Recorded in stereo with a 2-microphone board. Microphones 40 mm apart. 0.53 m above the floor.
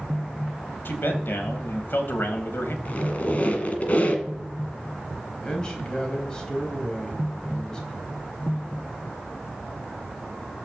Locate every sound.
0.8 s a man speaking: 55° left (ahead or behind), 3 m
2.9 s a squeak: 35° left (ahead or behind), 2 m
5.4 s a man speaking: 20° left (ahead or behind), 3.5 m